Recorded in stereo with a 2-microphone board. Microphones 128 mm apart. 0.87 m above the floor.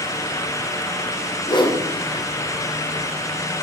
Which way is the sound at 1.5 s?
40° left (ahead or behind).